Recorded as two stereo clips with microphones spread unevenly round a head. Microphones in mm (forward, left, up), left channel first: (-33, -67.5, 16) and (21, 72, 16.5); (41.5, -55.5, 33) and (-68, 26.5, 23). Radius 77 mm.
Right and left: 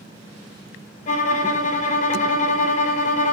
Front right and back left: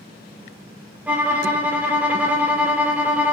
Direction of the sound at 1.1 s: 135° right.